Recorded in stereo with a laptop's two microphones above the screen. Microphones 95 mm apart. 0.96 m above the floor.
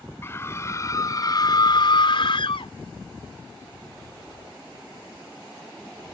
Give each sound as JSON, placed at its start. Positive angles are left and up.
{"t": 0.2, "sound": "a scream", "side_deg": 25}